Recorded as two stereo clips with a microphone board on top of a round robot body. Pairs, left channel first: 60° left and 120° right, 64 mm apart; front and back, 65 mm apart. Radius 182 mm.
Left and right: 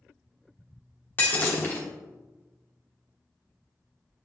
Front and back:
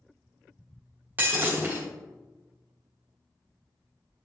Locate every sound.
1.2 s breaking glass: 115° left, 1.1 m